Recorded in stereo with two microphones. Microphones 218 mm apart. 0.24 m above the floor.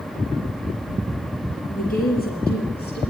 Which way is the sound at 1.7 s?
40° left (ahead or behind).